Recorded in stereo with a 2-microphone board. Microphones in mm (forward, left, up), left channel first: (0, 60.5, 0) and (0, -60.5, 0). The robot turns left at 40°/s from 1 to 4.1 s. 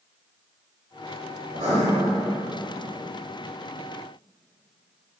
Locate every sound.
1.5 s writing: 70° right (ahead or behind), 1.4 m; by 1.8 s 65° right (ahead or behind), 1.4 m